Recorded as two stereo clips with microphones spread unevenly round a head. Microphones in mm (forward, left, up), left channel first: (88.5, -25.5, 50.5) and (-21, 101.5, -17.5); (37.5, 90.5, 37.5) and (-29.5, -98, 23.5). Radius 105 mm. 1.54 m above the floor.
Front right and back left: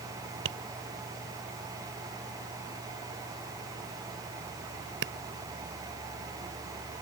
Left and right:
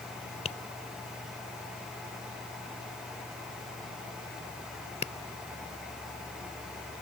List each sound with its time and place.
0.5 s tapping: 130° left